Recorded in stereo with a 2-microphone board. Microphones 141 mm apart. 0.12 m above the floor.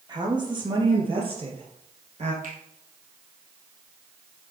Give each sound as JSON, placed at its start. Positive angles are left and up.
{"t": 0.1, "sound": "a woman speaking", "side_deg": -30, "distance_m": 3.5}
{"t": 2.4, "sound": "a finger snap", "side_deg": -70, "distance_m": 3.5}